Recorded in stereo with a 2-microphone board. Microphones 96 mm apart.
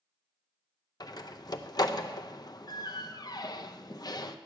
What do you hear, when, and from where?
1.0 s a door slam: 45° left (ahead or behind), 0.6 m